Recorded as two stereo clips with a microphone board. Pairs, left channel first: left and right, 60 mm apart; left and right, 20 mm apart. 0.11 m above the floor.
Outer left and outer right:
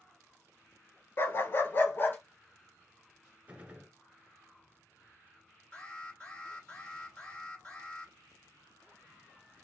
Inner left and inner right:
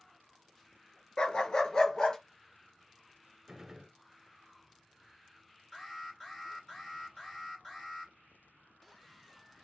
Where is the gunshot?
25° right (ahead or behind), 1.1 m.